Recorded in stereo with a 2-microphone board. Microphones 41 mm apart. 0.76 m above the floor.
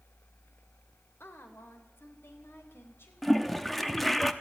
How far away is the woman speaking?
About 3 m.